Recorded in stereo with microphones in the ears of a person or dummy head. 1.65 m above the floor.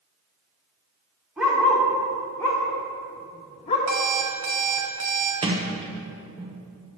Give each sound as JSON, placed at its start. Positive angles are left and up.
{"t": 1.4, "sound": "a dog barking", "side_deg": 0, "distance_m": 2.0}
{"t": 3.9, "sound": "an alarm clock", "side_deg": -50, "distance_m": 1.4}
{"t": 5.4, "sound": "a sliding door", "side_deg": -20, "distance_m": 0.8}